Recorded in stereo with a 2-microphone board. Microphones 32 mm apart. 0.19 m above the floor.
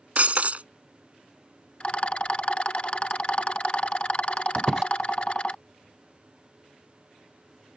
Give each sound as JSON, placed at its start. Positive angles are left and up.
{"t": 0.2, "sound": "breaking glass", "side_deg": -50}
{"t": 1.8, "sound": "a rattle", "side_deg": 40}
{"t": 4.5, "sound": "a squeak", "side_deg": -15}